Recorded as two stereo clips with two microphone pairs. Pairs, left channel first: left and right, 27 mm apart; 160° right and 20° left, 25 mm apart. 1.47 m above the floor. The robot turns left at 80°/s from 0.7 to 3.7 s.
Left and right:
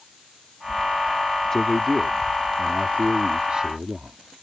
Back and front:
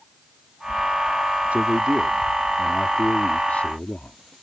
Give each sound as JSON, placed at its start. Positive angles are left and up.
{"t": 1.5, "sound": "a man speaking", "azimuth_deg": 20}